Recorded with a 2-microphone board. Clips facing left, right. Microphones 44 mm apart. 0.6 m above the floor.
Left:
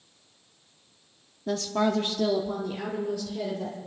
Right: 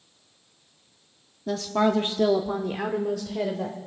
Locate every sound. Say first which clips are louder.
1.5 s a woman speaking: right 3 dB; 5° left (ahead or behind), 0.8 m; by 3.8 s 75° right (ahead or behind), 1.9 m